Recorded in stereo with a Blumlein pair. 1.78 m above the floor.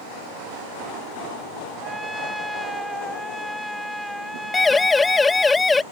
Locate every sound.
1.8 s a trumpet: straight ahead
4.5 s a siren: 10° left